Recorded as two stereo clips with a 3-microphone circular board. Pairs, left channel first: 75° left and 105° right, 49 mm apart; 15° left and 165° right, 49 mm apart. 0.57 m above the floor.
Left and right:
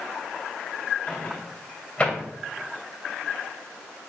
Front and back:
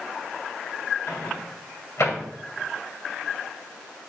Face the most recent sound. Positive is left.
turn(degrees=15)